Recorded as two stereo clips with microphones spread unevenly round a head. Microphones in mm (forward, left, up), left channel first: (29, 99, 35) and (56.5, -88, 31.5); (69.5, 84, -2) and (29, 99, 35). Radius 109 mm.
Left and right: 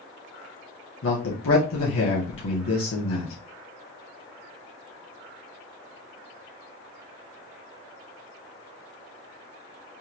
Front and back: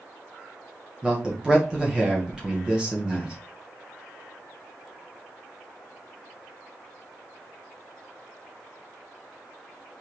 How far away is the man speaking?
About 1.6 m.